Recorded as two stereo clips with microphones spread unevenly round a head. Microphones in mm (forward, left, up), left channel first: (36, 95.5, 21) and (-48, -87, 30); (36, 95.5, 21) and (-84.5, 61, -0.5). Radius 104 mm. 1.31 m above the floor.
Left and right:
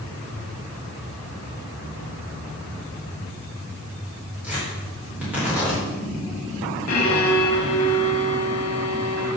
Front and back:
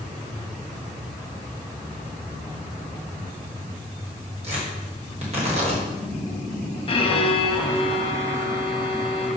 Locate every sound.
4.4 s tearing paper: 160° left, 4.5 m
6.9 s a violin: 55° left, 1.8 m